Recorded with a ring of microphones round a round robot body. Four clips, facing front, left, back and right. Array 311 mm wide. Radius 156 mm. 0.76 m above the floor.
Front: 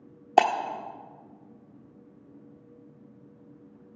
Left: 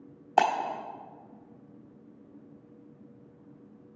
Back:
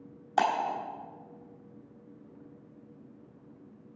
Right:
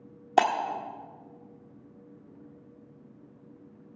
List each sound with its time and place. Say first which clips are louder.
0.4 s breaking glass: right 1 dB, front 6 dB; 35° right, 1.3 m